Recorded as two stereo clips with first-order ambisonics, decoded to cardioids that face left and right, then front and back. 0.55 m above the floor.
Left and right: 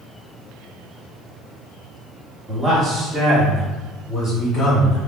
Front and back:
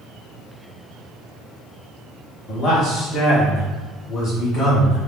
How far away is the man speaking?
About 1.4 m.